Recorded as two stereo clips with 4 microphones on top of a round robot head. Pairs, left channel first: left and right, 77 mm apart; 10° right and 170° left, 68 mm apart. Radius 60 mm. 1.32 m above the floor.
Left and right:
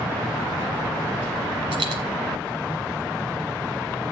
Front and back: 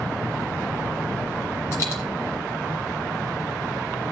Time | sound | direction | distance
1.7 | a dropped coin | 75° right | 1.8 m